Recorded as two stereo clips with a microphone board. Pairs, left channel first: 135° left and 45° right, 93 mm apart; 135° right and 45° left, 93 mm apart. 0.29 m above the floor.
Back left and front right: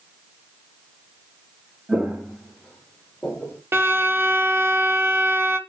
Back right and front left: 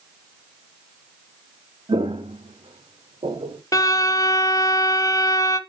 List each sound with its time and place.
1.9 s footsteps: 30° left, 1.2 m; by 3.6 s 60° left, 2.5 m
3.7 s a violin: 100° right, 0.9 m